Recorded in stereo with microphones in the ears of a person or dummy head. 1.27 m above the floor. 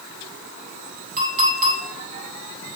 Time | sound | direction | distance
1.2 | a clink | 40° right (ahead or behind) | 2.5 m